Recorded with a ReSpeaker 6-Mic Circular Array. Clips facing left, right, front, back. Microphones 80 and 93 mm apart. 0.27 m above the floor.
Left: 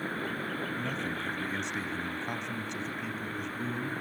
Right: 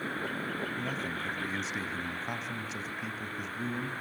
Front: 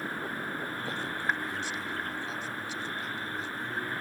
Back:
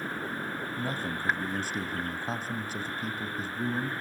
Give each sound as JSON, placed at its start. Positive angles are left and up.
{"t": 0.8, "sound": "a man speaking", "azimuth_deg": -175, "distance_m": 2.0}